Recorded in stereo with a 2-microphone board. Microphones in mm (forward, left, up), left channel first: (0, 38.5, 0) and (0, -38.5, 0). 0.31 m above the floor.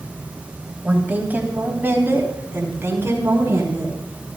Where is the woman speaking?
15° right (ahead or behind), 1.9 m; by 4.0 s 35° right (ahead or behind), 4 m.